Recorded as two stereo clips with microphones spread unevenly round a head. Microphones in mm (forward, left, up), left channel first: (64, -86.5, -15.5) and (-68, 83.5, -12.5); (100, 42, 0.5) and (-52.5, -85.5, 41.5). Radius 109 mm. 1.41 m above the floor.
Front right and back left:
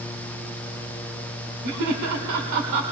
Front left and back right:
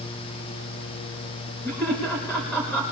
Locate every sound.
1.6 s laughter: 120° left, 1.6 m